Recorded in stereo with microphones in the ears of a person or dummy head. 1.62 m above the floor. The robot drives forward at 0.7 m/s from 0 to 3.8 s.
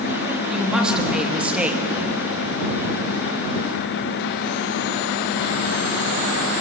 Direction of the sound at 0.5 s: 5° right (ahead or behind).